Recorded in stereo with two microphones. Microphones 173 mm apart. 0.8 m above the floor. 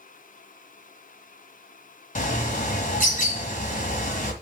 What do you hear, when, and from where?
2.1 s a bird: 50° left (ahead or behind), 1.5 m